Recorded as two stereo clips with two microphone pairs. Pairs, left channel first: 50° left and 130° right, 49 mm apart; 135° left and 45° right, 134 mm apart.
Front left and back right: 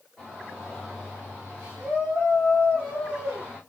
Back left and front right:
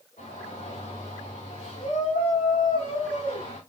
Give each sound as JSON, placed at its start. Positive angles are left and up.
{"t": 0.2, "sound": "a shout", "azimuth_deg": 145, "distance_m": 6.5}